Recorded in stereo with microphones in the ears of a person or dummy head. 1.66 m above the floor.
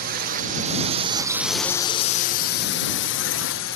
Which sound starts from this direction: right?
A drone, at 0.0 s.